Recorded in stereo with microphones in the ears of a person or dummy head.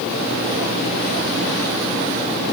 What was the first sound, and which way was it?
Only background noise.